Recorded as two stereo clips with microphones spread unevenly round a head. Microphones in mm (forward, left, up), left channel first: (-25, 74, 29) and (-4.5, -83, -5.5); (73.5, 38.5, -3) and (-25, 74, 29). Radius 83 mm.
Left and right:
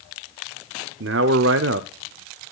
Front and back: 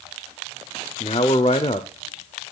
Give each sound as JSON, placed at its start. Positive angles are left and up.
{"t": 1.0, "sound": "a man speaking", "azimuth_deg": -75, "distance_m": 0.6}